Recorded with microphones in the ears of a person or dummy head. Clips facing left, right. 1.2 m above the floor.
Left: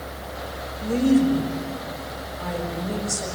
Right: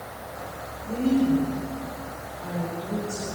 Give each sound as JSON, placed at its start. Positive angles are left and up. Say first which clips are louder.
{"t": 0.8, "sound": "a woman speaking", "louder": "left 4 dB", "side_deg": 80, "distance_m": 5.5}